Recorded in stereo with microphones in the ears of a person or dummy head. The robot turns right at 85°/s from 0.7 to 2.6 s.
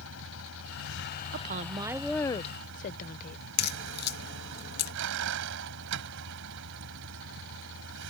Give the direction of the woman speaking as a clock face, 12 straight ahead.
2 o'clock.